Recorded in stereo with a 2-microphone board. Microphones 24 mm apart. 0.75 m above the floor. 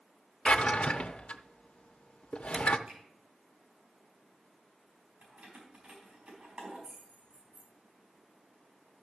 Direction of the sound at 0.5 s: 60° left (ahead or behind).